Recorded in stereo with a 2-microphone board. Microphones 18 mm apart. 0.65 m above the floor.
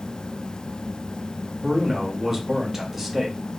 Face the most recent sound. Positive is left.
turn(degrees=-15)  # may be behind; listen again after turning